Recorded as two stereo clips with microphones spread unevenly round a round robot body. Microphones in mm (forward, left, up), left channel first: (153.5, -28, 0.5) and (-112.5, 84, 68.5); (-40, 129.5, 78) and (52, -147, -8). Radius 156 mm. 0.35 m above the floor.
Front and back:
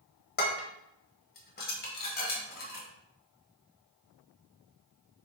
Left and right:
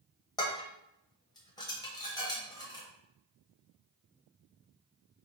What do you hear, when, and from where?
0.4 s dishes clattering: 25° left, 1.1 m